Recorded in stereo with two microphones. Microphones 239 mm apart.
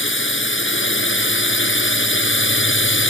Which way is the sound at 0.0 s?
55° left (ahead or behind).